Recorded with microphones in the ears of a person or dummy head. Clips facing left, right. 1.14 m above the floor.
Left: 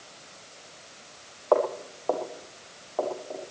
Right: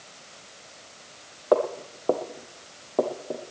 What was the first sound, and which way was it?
Footsteps, 25° right (ahead or behind).